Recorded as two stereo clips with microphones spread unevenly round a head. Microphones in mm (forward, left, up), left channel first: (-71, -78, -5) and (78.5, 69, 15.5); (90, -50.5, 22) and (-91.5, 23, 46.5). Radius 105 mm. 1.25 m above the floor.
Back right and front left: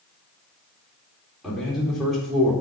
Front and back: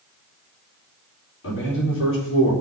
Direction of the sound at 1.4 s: 45° right.